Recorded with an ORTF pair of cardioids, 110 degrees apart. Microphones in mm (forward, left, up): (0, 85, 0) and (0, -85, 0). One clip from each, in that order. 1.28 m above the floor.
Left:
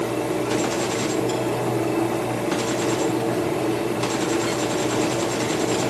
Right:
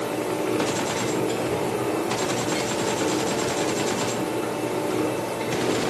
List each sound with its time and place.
0.0 s a fan: 70° left, 5 m